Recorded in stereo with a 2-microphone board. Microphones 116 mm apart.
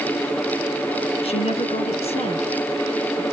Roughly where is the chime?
I don't hear a chime.